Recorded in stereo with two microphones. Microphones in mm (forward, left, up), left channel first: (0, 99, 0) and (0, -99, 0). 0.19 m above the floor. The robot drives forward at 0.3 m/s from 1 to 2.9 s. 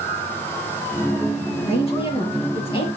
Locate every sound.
1.7 s a woman speaking: 30° left (ahead or behind), 4.5 m; by 2.9 s 25° left (ahead or behind), 4.5 m